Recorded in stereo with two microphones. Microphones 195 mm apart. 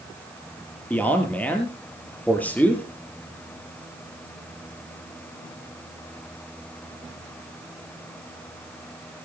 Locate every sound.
0.9 s a man speaking: 10° left (ahead or behind), 4 m